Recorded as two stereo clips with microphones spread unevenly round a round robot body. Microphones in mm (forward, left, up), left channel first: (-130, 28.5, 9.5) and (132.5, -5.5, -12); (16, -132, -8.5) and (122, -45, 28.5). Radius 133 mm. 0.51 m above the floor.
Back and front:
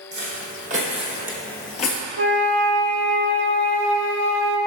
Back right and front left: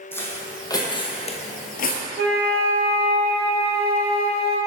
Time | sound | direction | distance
0.1 | footsteps | 60° right | 1.7 m
2.2 | a flute | 35° left | 0.9 m